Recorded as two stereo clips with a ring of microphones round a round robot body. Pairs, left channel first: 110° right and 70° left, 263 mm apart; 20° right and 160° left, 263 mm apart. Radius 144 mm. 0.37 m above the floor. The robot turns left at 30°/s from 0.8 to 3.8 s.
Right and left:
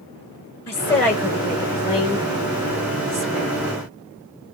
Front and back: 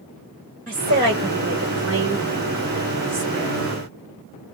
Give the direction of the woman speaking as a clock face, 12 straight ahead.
5 o'clock.